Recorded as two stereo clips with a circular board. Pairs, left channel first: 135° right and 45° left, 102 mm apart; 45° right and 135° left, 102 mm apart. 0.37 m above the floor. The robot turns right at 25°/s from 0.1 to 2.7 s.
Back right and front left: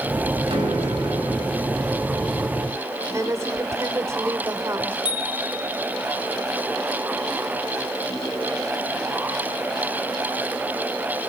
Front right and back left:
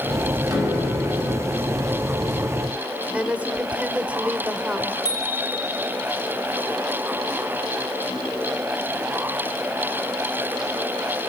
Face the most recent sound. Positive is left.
turn(degrees=-95)